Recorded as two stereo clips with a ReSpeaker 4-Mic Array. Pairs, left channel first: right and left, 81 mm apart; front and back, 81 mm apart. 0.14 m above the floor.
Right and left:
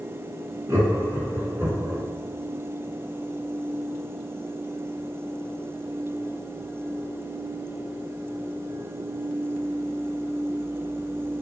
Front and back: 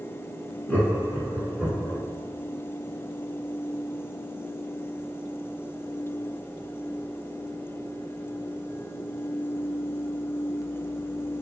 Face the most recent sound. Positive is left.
turn(degrees=105)